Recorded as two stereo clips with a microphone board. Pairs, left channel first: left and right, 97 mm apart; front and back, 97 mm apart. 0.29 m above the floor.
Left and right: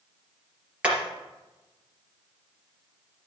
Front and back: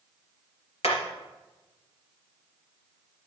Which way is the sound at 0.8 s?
10° right.